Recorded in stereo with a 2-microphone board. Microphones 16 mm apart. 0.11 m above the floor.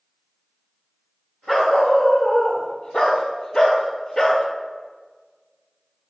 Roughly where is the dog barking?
Left.